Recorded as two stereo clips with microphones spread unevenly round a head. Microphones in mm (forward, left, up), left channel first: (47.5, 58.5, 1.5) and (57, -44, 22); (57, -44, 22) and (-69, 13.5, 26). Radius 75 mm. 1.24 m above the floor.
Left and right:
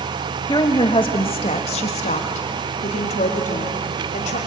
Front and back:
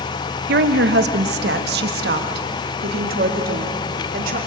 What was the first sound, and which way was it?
A woman speaking, 165° left.